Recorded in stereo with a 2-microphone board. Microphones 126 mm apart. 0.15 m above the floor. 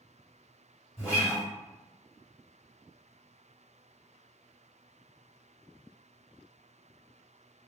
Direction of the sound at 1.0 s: 25° left (ahead or behind).